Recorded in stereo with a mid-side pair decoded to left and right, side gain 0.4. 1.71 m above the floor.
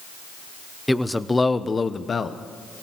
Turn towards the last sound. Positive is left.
turn(degrees=50)